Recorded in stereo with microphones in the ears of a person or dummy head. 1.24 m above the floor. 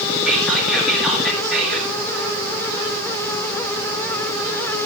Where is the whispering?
Centre (ahead or behind), 2.5 m.